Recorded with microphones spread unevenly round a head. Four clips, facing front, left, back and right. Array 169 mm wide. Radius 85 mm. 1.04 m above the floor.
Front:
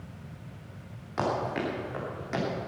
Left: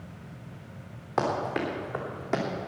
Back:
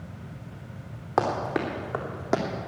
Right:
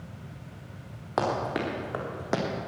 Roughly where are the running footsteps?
Behind.